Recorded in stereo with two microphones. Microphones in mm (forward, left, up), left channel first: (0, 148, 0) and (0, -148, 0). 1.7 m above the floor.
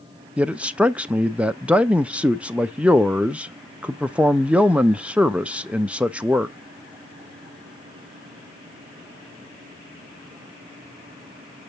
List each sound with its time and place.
0.4 s a man speaking: 5° right (ahead or behind), 0.6 m